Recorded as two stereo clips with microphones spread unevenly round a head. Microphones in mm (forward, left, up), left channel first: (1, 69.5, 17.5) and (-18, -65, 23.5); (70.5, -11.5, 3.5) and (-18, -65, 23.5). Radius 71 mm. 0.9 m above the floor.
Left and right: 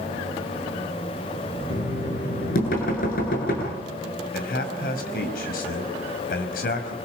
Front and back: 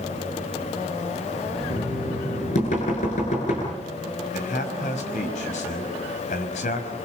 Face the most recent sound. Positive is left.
turn(degrees=55)